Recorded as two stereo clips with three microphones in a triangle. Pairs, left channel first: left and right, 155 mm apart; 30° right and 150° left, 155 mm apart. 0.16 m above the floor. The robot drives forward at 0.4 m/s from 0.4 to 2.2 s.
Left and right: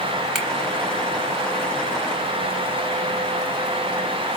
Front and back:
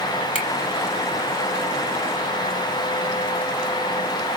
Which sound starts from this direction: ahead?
A finger snap, at 0.3 s.